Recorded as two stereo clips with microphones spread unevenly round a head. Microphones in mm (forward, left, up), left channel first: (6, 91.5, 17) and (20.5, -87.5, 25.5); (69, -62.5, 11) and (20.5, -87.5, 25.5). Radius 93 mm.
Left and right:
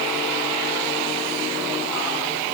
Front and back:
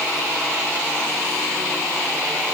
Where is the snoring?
No snoring in this recording.